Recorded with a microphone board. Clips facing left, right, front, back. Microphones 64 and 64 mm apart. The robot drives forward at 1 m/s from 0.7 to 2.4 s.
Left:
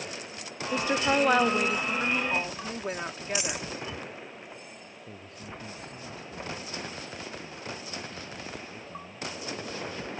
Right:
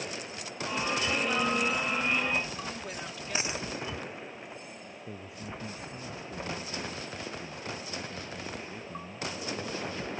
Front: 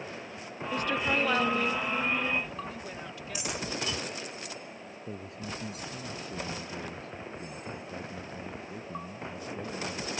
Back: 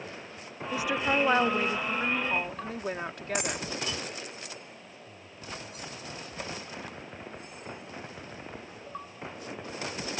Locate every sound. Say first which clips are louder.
0.7 s a woman speaking: left 5 dB, back 1 dB; 95° left; by 3.6 s 140° left
3.4 s a dropped coin: right 1 dB, back 3 dB; 150° right
5.1 s a man speaking: right 2 dB, front 5 dB; 15° right